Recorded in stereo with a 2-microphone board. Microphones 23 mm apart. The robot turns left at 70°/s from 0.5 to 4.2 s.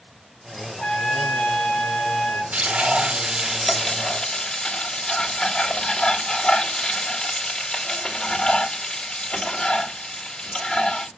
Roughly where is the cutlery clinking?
No cutlery clinking in this recording.